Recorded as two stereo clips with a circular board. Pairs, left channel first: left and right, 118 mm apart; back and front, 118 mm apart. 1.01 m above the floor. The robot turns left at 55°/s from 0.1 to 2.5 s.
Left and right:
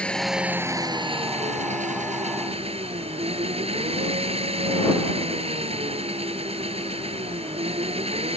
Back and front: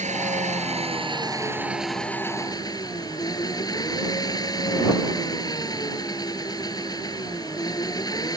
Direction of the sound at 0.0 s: 10° left.